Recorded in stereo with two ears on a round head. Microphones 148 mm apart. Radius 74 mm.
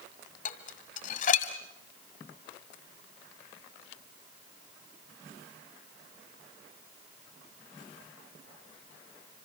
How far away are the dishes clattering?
About 1.8 m.